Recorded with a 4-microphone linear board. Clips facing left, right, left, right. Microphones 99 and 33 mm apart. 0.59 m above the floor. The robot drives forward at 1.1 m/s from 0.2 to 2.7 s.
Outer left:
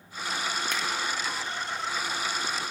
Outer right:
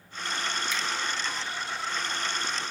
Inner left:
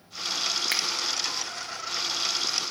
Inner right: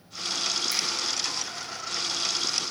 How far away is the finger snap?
About 0.8 m.